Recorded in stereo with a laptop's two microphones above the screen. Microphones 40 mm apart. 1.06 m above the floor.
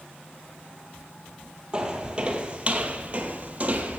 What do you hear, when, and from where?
1.7 s footsteps: 20° right (ahead or behind), 1.3 m; by 4.0 s 35° right (ahead or behind), 1.5 m